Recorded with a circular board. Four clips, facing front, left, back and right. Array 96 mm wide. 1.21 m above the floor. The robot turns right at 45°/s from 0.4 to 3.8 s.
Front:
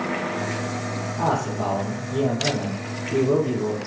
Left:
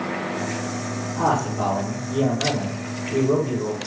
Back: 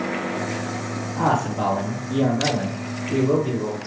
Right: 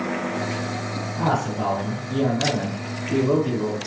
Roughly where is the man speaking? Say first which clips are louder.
Left 2 dB, back 3 dB; behind left.